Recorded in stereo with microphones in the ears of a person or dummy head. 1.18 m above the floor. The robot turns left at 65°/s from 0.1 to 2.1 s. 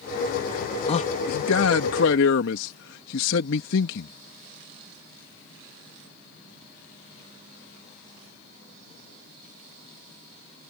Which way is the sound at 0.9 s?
145° left.